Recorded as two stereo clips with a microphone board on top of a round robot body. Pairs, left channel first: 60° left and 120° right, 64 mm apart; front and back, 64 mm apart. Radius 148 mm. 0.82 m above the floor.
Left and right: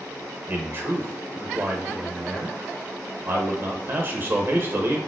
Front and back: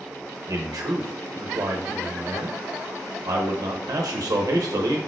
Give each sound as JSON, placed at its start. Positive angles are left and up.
{"t": 0.5, "sound": "a man speaking", "azimuth_deg": -170, "distance_m": 0.9}